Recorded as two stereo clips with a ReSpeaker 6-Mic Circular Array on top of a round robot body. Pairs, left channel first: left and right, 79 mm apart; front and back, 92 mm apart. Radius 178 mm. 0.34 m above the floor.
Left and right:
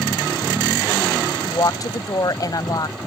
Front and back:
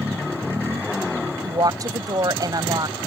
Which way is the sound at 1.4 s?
130° left.